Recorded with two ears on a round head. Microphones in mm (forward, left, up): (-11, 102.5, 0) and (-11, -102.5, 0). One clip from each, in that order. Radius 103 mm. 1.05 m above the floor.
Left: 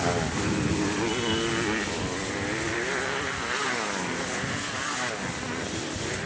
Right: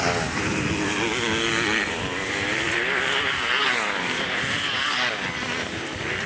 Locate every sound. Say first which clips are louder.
0.0 s a motorcycle: right 3 dB; 65° right (ahead or behind); by 6.3 s 80° right